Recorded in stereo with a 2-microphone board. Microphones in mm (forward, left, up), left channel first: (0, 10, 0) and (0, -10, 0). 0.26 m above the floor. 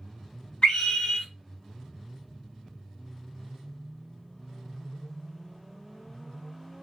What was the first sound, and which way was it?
A scream, 45° left (ahead or behind).